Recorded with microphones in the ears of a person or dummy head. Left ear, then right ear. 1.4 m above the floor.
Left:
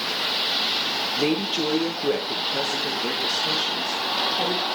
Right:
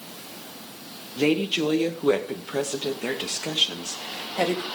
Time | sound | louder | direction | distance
1.2 | a woman speaking | right 6 dB | 15° right (ahead or behind) | 1.4 m